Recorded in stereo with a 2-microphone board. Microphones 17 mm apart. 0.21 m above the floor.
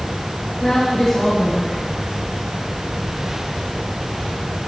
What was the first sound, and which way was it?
A woman speaking, 45° left (ahead or behind).